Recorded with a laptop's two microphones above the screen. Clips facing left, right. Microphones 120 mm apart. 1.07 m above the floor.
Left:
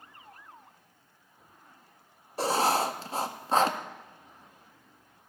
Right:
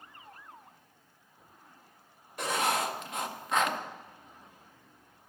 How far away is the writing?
About 0.5 m.